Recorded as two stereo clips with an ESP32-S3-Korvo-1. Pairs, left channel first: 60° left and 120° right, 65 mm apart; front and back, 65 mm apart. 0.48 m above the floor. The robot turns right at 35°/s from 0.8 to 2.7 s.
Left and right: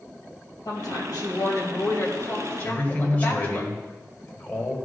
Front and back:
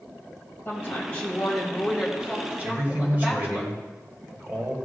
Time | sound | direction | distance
0.7 | a woman speaking | 55° left | 2 m
2.6 | a man speaking | 120° left | 1.8 m